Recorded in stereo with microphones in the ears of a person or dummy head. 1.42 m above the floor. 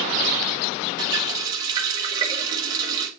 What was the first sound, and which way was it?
A running tap, 20° right (ahead or behind).